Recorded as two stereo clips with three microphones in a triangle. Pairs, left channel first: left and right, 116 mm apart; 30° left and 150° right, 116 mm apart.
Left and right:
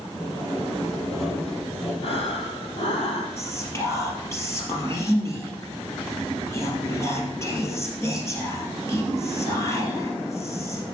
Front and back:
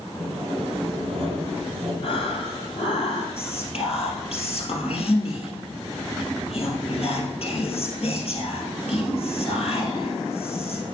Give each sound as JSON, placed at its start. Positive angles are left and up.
{"t": 0.2, "sound": "sawing", "azimuth_deg": 175, "distance_m": 4.0}
{"t": 2.0, "sound": "breathing", "azimuth_deg": 60, "distance_m": 2.5}
{"t": 3.4, "sound": "whispering", "azimuth_deg": 30, "distance_m": 3.0}